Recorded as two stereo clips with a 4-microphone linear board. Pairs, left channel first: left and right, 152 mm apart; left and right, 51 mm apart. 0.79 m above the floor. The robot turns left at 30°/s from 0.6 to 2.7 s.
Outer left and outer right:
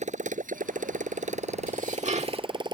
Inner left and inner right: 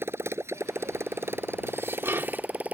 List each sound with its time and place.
0.0 s a motorcycle: 55° right (ahead or behind); by 2.7 s 30° right (ahead or behind)
1.7 s dishes clattering: 65° right (ahead or behind); by 2.5 s 40° right (ahead or behind)